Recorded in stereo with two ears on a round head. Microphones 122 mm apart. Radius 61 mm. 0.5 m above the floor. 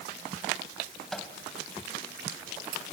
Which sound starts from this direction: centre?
A microwave, at 1.1 s.